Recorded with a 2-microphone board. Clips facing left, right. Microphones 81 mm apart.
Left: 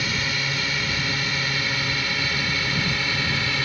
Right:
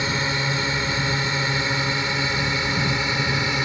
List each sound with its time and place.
0.0 s a drone: 25° right (ahead or behind); by 3.6 s 20° right (ahead or behind)